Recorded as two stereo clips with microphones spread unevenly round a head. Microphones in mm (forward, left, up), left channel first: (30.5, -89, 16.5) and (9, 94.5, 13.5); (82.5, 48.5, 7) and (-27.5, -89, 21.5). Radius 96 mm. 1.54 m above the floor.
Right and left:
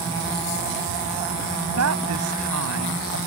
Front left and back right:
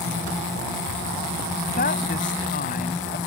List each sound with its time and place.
1.7 s a woman speaking: 105° left